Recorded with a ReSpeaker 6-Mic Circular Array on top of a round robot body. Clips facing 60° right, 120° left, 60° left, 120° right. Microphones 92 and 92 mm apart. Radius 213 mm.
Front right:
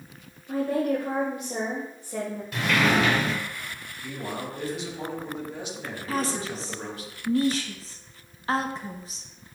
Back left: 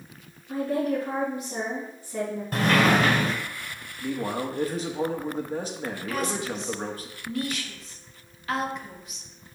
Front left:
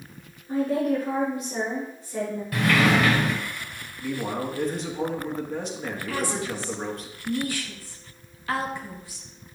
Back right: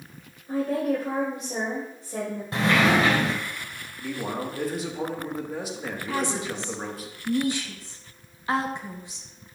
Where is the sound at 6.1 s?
70° right, 1.4 m.